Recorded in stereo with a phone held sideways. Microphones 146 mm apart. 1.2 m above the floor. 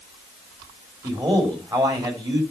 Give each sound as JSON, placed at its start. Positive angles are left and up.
{"t": 1.0, "sound": "a man speaking", "side_deg": -30, "distance_m": 3.5}